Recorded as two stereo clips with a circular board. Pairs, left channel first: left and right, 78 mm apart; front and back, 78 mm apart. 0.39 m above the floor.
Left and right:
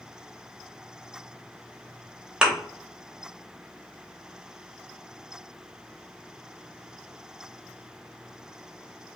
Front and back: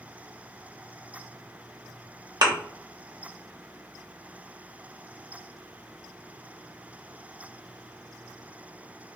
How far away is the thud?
About 0.7 m.